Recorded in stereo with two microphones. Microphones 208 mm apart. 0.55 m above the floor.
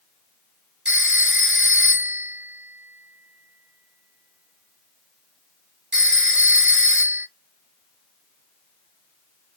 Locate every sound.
0.8 s a phone ringing: 55° right (ahead or behind), 1.1 m